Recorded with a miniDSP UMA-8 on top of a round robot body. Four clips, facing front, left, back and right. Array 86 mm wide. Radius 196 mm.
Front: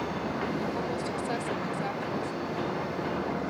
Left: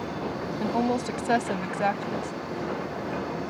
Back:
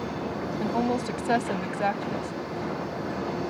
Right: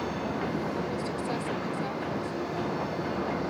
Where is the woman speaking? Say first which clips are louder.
Left 6 dB, back 5 dB; 125° left.